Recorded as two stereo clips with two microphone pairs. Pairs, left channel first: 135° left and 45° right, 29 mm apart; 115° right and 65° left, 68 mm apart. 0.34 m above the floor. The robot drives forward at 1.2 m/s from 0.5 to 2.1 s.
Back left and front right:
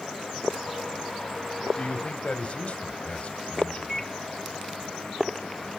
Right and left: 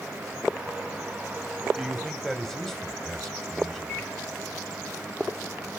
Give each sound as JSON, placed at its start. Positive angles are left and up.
{"t": 1.8, "sound": "a man speaking", "azimuth_deg": 150, "distance_m": 1.2}
{"t": 3.9, "sound": "a microwave", "azimuth_deg": -160, "distance_m": 1.1}